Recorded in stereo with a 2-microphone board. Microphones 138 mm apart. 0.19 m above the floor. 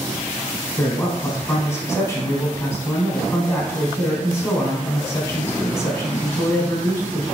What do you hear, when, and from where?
0.8 s a man speaking: 20° left (ahead or behind), 1.0 m